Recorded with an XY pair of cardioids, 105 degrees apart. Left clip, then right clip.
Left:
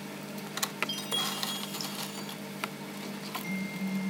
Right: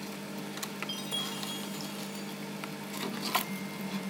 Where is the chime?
25° left, 4.5 m.